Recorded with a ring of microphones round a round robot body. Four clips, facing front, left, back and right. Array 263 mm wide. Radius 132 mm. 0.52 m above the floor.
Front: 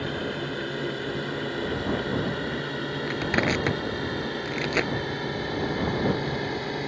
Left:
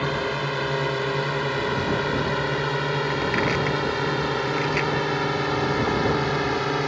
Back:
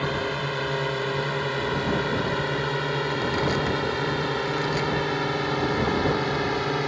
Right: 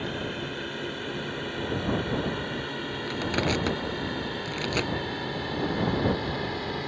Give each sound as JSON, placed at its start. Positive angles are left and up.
{"t": 0.0, "sound": "a drone", "azimuth_deg": 120}
{"t": 3.1, "sound": "crushing", "azimuth_deg": -15}